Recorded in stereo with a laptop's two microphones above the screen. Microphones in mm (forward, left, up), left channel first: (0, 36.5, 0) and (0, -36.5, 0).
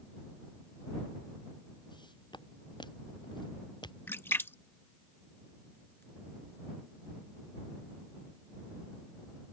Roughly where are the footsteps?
Left.